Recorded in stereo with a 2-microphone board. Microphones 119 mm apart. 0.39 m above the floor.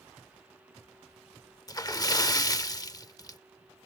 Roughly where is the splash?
Left.